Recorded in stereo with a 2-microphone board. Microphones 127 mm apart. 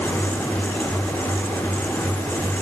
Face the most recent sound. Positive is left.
No sound to turn to.